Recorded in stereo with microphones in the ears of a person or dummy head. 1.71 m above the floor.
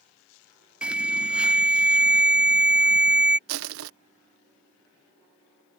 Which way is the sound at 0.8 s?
5° right (ahead or behind).